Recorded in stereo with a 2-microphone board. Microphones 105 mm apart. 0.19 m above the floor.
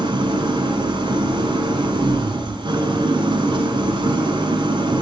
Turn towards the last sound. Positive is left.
turn(degrees=-50)  # may be behind; listen again after turning